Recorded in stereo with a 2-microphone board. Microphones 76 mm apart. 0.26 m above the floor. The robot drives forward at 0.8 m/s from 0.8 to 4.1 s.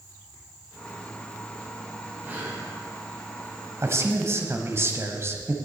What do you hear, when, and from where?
2.2 s breathing: 25° right (ahead or behind), 3 m
3.8 s a man speaking: 40° right (ahead or behind), 1.2 m; by 5.5 s 35° right (ahead or behind), 1.3 m